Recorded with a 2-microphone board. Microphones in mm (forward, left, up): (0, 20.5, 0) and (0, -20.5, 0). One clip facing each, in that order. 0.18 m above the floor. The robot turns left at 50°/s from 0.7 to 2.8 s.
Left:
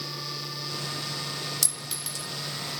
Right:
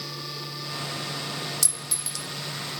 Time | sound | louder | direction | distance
1.6 | a clink | even | 30° left (ahead or behind) | 1.1 m